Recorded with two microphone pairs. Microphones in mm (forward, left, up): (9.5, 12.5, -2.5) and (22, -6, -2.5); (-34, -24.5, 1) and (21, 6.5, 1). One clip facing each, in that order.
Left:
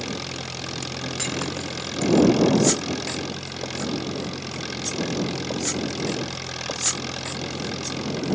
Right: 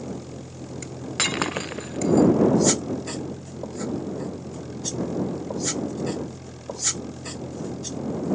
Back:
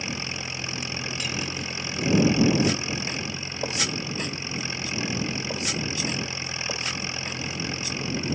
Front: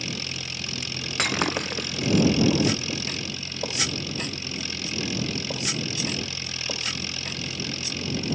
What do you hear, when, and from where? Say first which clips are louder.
0.0 s an engine running: left 5 dB, back 2 dB; 145° left
1.2 s breaking glass: right 6 dB, front 11 dB; straight ahead